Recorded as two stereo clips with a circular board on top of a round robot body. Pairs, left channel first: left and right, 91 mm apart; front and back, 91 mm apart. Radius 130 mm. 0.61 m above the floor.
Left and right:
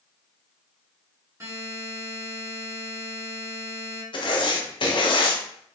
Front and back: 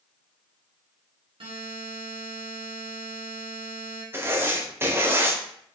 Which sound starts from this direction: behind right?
A buzzer, at 1.4 s.